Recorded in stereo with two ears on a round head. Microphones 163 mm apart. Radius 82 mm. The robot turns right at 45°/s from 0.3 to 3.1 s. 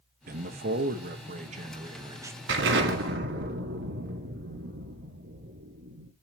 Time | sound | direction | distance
0.3 | a man speaking | 110° right | 1.1 m
2.5 | an explosion | 70° right (ahead or behind) | 2 m